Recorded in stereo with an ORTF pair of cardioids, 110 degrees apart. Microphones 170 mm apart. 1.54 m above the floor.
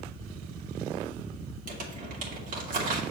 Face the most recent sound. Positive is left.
turn(degrees=-55)